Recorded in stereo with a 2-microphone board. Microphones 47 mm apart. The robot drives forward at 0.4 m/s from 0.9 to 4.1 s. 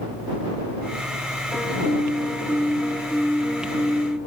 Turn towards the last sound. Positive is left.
turn(degrees=55)  # may be behind; listen again after turning